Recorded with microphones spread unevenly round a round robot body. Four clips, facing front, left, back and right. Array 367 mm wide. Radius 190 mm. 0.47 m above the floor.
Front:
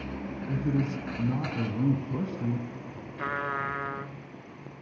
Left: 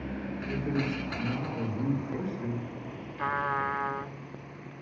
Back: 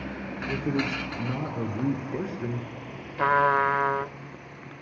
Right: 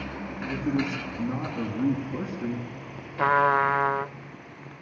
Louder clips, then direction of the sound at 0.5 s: Right 4 dB, back 1 dB; 10° right.